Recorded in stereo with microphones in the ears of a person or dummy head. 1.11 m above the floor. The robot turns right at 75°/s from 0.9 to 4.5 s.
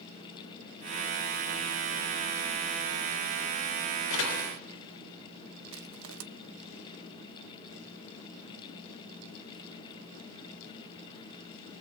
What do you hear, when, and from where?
4.1 s a door slam: 90° left, 3 m; by 4.5 s 120° left, 3 m
5.7 s crushing: 70° right (ahead or behind), 1.1 m